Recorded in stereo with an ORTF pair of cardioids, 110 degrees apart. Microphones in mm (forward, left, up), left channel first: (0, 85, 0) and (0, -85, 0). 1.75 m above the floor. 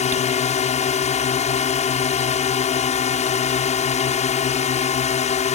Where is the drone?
40° left.